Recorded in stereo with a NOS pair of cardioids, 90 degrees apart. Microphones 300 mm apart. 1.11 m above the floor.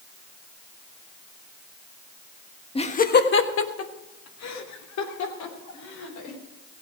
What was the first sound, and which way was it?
Laughter, 20° left.